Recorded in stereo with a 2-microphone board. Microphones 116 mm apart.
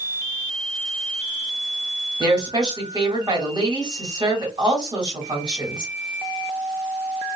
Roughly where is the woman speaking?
Right.